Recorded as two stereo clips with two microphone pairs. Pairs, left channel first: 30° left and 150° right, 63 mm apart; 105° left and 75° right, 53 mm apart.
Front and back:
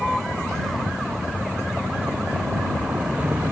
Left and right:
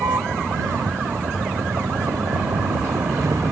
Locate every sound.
0.0 s a vehicle: 55° right; by 3.5 s 85° right